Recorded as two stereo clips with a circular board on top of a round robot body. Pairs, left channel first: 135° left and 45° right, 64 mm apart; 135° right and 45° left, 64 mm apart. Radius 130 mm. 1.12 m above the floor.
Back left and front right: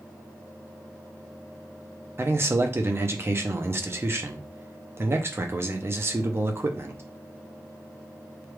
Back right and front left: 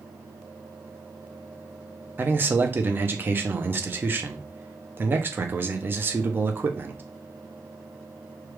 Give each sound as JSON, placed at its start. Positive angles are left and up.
{"t": 2.2, "sound": "a man speaking", "azimuth_deg": -5, "distance_m": 0.8}